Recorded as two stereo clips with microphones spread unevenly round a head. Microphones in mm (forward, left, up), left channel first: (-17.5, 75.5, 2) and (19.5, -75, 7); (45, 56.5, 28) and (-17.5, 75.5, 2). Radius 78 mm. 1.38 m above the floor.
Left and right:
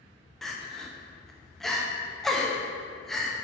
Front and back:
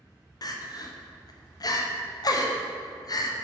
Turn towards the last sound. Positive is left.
turn(degrees=15)